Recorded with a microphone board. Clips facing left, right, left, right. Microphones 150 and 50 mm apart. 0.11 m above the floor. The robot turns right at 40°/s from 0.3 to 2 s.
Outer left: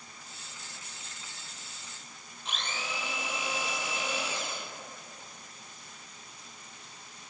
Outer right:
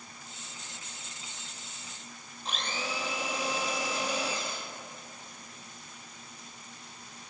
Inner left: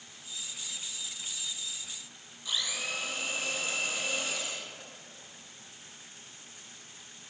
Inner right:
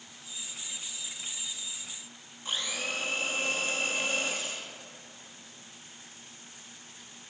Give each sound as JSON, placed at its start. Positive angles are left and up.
{"t": 2.5, "sound": "a blender", "side_deg": -40, "distance_m": 0.7}